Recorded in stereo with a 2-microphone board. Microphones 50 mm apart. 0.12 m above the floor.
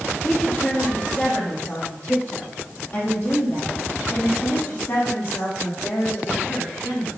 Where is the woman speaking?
30° left (ahead or behind), 4 m; by 7.1 s 55° left (ahead or behind), 7 m.